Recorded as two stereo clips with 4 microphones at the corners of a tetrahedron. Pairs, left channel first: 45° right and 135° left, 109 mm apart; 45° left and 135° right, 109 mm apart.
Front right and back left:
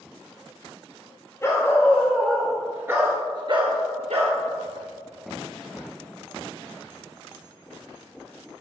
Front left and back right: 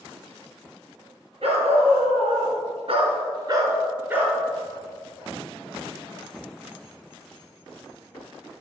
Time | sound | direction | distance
1.4 | a dog barking | 110° right | 2.5 m